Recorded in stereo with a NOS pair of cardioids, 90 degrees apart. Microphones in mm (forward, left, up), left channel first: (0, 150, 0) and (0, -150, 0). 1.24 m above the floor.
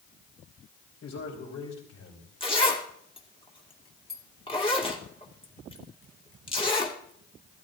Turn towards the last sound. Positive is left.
turn(degrees=20)